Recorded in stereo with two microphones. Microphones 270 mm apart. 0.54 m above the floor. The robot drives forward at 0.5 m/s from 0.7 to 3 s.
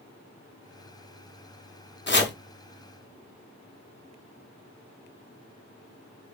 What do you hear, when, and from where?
2.1 s chopping: 40° left (ahead or behind), 0.6 m